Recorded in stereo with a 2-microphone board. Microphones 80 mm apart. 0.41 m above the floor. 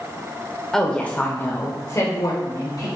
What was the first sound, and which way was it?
A woman speaking, 5° left (ahead or behind).